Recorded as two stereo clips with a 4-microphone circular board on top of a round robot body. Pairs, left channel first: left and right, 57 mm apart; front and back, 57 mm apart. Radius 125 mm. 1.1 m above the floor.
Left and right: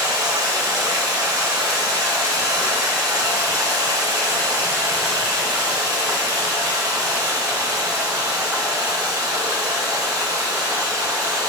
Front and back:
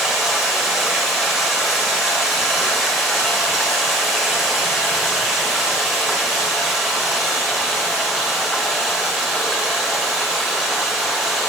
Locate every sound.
0.0 s running water: 105° right, 1.0 m